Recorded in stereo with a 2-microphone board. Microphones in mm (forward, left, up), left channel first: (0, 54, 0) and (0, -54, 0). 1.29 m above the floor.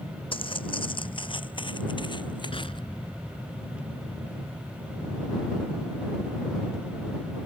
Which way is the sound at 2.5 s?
55° left (ahead or behind).